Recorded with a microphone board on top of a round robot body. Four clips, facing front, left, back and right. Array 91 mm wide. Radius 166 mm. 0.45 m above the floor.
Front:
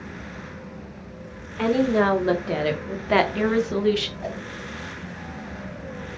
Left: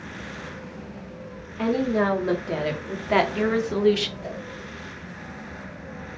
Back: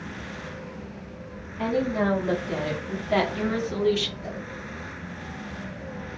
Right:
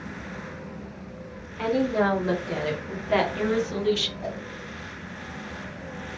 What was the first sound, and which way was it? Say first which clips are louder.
A woman speaking: left 1 dB, front 5 dB; 5° left.